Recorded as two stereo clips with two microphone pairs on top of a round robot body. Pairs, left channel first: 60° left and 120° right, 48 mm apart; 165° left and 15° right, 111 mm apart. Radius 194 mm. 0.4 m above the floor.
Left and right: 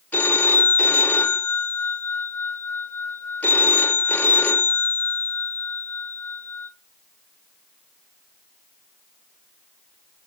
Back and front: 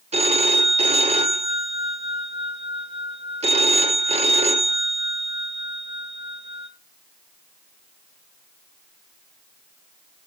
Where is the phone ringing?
Straight ahead, 1.8 m.